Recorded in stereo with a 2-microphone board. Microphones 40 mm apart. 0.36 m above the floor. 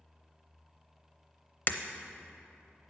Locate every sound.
1.7 s breaking glass: 50° left (ahead or behind), 0.6 m